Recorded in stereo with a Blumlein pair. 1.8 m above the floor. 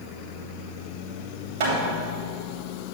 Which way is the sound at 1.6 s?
55° right.